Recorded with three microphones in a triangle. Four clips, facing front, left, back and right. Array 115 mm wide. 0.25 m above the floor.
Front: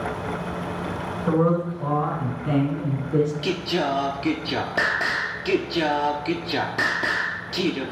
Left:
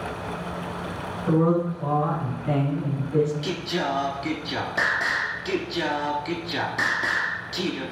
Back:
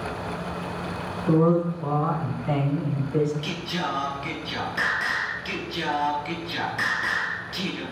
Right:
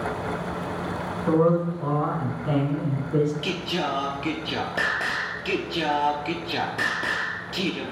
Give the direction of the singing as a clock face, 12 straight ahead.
1 o'clock.